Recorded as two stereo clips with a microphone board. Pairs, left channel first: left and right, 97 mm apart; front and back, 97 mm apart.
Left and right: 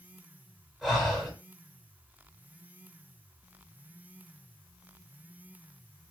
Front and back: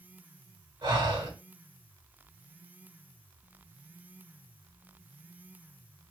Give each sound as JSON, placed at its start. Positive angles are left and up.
{"t": 0.8, "sound": "breathing", "azimuth_deg": 180, "distance_m": 1.9}